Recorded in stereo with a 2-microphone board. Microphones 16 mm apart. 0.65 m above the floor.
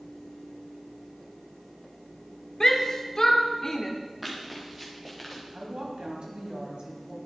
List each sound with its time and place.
2.6 s a shout: 35° left (ahead or behind), 1.5 m
4.2 s running footsteps: 15° right (ahead or behind), 4 m; by 5.4 s centre (ahead or behind), 4 m
5.5 s a woman speaking: 75° right (ahead or behind), 4 m